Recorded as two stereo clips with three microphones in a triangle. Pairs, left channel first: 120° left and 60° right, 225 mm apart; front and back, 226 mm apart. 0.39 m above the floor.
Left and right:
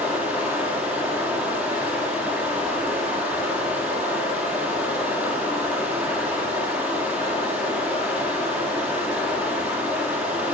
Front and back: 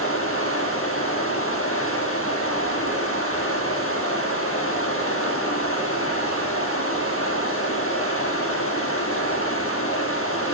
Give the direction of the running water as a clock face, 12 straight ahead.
11 o'clock.